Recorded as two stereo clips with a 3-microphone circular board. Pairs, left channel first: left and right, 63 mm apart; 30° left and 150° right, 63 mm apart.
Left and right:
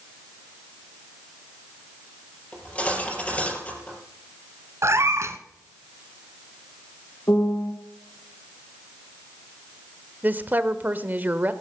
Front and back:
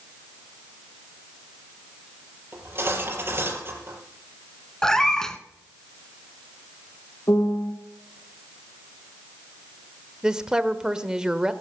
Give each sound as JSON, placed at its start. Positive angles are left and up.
{"t": 2.5, "sound": "cutlery clinking", "azimuth_deg": 160, "distance_m": 4.5}
{"t": 4.8, "sound": "a cat meowing", "azimuth_deg": -50, "distance_m": 1.3}
{"t": 7.3, "sound": "a piano", "azimuth_deg": 55, "distance_m": 2.5}
{"t": 10.2, "sound": "a woman speaking", "azimuth_deg": -85, "distance_m": 1.0}